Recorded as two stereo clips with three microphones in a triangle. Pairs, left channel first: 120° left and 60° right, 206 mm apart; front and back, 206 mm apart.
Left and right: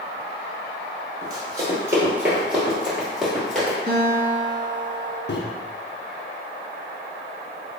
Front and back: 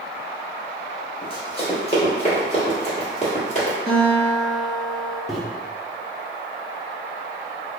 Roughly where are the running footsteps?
Ahead.